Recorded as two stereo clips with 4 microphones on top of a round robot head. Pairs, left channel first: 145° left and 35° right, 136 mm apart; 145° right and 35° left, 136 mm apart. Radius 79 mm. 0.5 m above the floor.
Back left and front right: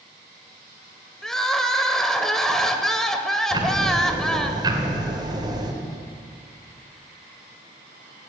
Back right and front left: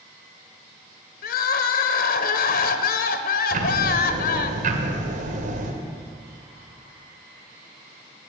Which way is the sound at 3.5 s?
20° left.